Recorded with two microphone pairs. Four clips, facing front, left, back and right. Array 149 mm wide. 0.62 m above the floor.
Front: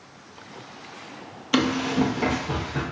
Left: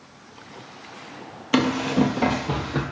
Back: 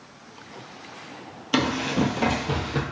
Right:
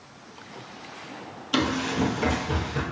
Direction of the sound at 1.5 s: 65° left.